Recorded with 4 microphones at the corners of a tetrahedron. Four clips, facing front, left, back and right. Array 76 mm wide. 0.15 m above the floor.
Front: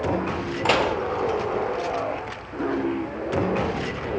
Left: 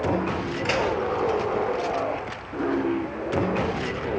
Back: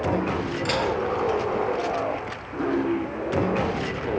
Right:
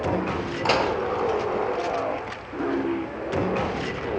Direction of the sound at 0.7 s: 30° right.